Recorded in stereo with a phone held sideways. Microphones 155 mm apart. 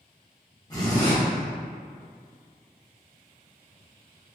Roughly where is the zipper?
Left.